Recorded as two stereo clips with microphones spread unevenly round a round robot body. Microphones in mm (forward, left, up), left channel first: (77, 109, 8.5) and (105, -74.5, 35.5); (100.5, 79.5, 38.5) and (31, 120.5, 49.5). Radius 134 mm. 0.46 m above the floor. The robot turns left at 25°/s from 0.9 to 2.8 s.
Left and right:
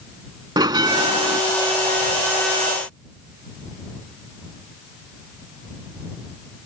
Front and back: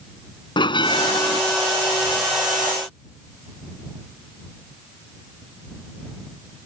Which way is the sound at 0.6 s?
15° right.